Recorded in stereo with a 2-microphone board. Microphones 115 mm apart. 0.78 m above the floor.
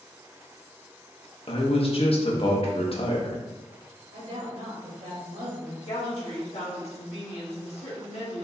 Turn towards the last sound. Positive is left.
turn(degrees=60)  # may be behind; listen again after turning